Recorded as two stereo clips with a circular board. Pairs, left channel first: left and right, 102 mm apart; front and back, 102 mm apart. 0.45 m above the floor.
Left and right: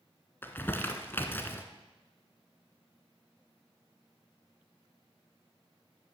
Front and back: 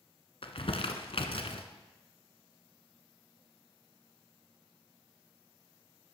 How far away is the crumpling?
About 1.0 m.